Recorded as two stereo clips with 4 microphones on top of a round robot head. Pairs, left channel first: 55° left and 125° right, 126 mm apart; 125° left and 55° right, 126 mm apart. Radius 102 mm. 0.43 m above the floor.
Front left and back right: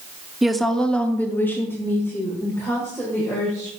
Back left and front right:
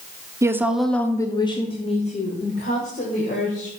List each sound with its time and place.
0.4 s a woman speaking: 40° right, 0.8 m; by 3.7 s 125° left, 2 m